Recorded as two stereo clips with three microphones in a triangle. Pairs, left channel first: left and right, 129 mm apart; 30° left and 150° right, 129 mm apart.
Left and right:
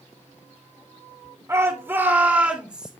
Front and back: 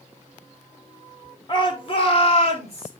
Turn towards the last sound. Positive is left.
turn(degrees=-5)